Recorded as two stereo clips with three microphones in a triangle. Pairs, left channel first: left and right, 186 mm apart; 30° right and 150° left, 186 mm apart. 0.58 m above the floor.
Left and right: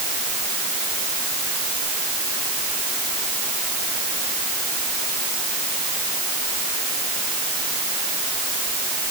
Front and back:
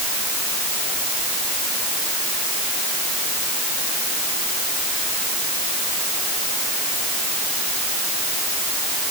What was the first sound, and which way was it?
Only background noise.